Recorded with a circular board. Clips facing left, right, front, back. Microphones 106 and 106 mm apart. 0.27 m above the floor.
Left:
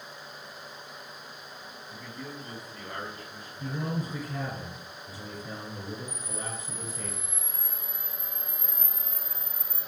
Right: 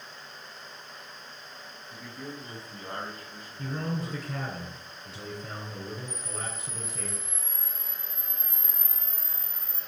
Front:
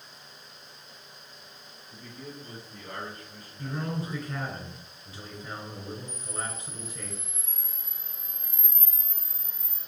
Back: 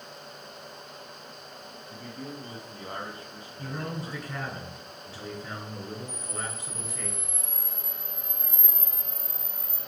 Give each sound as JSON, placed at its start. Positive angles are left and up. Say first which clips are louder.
{"t": 1.9, "sound": "a man speaking", "louder": "right 1 dB, back 3 dB", "azimuth_deg": 180, "distance_m": 2.0}
{"t": 3.6, "sound": "a man speaking", "louder": "even, front 2 dB", "azimuth_deg": -90, "distance_m": 3.0}
{"t": 6.1, "sound": "a camera shutter", "louder": "even, back 1 dB", "azimuth_deg": -135, "distance_m": 2.5}